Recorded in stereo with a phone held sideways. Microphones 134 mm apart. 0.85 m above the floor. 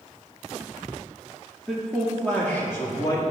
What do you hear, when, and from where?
1.7 s a man speaking: centre (ahead or behind), 1.5 m; by 3.2 s 30° left (ahead or behind), 1.6 m